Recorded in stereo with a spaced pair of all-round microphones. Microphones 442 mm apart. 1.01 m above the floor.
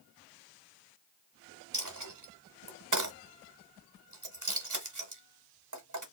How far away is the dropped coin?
About 1.0 m.